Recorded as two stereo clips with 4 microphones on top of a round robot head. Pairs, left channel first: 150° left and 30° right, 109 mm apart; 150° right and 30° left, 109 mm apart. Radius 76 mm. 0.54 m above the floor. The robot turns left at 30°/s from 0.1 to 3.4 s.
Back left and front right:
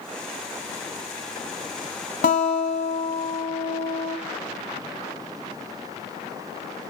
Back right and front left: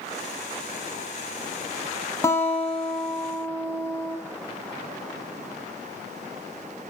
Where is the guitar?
145° left, 0.9 m; by 4.2 s 110° left, 0.9 m.